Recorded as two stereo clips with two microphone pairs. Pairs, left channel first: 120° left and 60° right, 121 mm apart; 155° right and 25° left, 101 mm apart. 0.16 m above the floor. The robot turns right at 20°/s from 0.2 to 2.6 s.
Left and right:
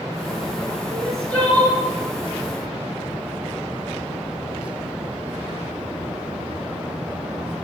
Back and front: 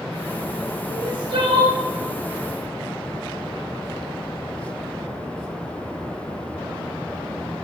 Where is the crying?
30° left, 1.3 m; by 1.8 s 45° left, 1.3 m.